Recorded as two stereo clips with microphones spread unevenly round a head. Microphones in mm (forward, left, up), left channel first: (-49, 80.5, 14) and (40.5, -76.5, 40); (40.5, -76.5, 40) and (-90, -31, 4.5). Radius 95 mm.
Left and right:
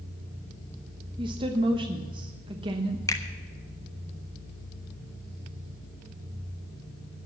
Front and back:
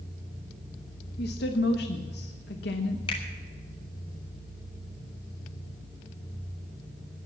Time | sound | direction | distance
1.2 | a woman speaking | 5° left | 1.0 m
3.1 | a finger snap | 45° left | 1.1 m